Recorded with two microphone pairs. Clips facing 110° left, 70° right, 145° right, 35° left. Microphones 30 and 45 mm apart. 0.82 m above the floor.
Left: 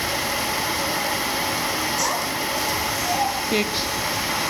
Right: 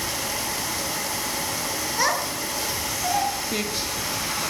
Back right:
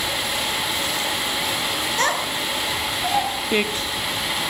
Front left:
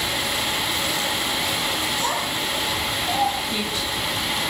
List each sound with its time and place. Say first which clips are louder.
2.0 s a child speaking: even, back right 2 dB; 125° right, 7 m
3.5 s a man speaking: left 5 dB, back right 3 dB; 175° left, 1.4 m